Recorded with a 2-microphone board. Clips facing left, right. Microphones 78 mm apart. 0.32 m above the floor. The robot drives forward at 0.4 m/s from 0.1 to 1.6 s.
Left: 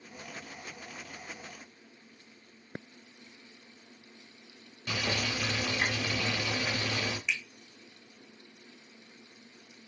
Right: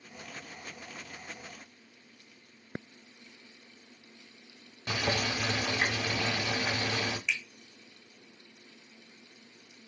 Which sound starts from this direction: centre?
A finger snap, at 7.3 s.